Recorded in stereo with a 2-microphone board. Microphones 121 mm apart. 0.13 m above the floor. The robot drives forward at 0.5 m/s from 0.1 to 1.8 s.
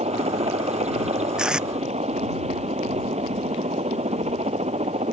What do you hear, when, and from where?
0.0 s a helicopter: 65° right (ahead or behind)
1.4 s tape being pulled: 5° right (ahead or behind)